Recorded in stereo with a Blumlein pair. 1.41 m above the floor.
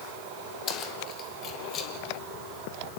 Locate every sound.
0.7 s keys jangling: 30° left, 3.5 m